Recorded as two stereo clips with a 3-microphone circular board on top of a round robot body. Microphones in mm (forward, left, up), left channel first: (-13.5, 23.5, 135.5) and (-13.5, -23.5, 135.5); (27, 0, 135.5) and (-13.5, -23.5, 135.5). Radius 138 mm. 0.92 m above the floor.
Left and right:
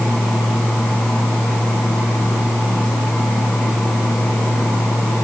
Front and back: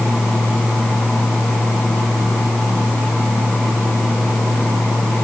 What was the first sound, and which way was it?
Only background noise.